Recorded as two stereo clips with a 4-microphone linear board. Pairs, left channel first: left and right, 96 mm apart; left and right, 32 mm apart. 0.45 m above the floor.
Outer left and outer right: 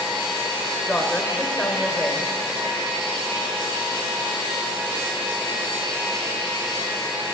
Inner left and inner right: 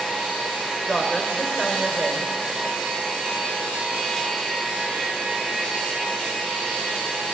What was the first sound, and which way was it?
A woman speaking, 15° left (ahead or behind).